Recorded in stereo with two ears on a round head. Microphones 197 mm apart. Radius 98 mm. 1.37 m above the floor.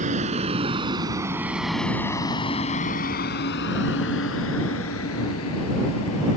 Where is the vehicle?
35° right (ahead or behind); by 6.4 s 85° left.